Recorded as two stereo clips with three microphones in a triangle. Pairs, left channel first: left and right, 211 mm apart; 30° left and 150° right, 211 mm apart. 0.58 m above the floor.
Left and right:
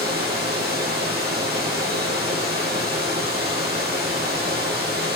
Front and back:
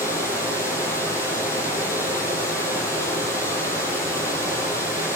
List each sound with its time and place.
0.0 s running water: 45° right, 7.5 m